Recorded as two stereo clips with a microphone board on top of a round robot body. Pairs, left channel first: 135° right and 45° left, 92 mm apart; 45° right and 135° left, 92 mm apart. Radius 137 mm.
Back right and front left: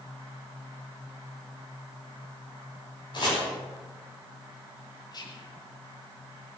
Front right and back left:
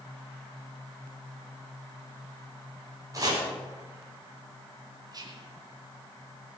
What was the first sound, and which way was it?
Chopping, 175° right.